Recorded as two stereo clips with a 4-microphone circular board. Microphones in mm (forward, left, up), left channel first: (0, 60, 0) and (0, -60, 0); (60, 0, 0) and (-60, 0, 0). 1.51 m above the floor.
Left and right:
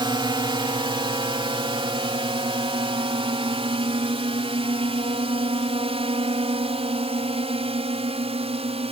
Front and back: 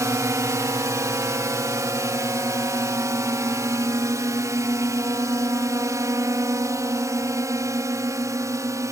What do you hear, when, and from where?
0.0 s a drone: 125° right; by 8.9 s 120° right